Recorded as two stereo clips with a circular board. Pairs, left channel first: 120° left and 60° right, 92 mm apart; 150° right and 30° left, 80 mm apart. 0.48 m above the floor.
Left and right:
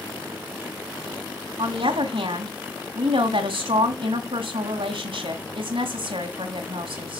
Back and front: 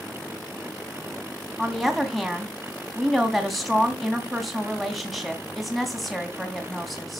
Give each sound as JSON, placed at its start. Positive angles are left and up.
{"t": 1.6, "sound": "a woman speaking", "azimuth_deg": -60, "distance_m": 3.0}